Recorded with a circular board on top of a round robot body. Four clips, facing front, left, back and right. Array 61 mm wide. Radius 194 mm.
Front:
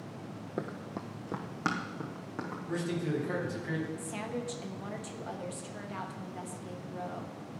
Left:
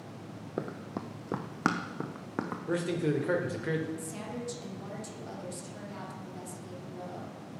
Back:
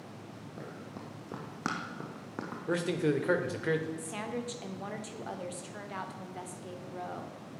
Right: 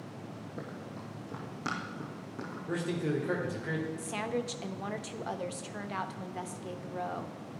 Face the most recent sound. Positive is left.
turn(degrees=-100)